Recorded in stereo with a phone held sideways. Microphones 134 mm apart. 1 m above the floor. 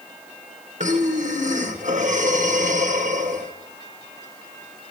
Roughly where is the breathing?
Right.